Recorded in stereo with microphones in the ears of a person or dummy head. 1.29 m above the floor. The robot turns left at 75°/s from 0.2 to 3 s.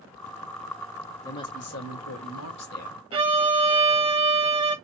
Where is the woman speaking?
170° left, 1.1 m; by 3.0 s 35° left, 1.1 m.